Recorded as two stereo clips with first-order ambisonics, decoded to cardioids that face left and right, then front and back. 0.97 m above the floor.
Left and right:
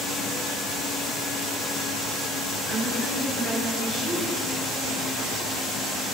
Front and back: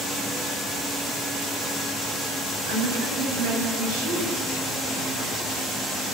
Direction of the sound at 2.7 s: 165° left.